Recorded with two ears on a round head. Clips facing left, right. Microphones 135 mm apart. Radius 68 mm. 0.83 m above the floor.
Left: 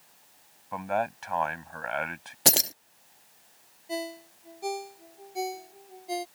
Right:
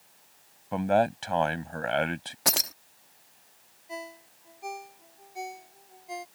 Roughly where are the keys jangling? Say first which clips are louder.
Left 4 dB; left.